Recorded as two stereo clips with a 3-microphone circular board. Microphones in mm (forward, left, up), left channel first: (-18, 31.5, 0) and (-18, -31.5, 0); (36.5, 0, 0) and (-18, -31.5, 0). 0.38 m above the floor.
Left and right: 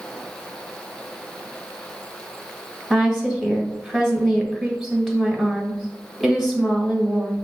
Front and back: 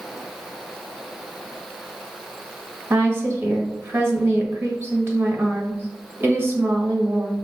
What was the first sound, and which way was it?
A woman speaking, straight behind.